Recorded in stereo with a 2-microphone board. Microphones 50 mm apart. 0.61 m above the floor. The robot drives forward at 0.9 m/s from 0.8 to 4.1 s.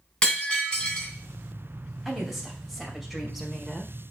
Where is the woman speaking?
Centre (ahead or behind), 3 m.